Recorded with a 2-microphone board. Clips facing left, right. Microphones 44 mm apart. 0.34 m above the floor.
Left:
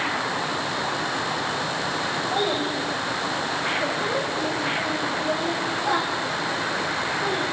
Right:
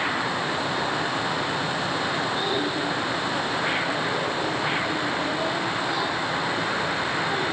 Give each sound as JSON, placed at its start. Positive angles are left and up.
{"t": 2.3, "sound": "a child speaking", "side_deg": 70, "distance_m": 9.5}